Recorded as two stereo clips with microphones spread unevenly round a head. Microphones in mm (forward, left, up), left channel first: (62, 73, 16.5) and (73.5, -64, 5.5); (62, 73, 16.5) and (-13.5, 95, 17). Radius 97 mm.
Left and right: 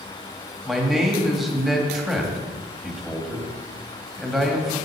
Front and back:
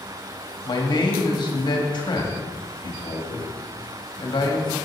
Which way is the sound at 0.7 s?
5° left.